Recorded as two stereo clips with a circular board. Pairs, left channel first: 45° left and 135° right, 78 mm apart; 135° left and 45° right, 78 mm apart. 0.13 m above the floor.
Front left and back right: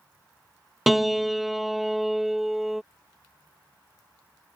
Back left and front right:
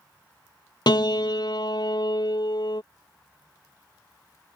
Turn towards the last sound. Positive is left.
turn(degrees=135)